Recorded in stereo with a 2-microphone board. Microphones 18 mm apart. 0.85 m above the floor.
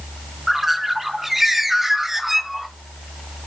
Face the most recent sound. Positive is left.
turn(degrees=-15)  # may be behind; listen again after turning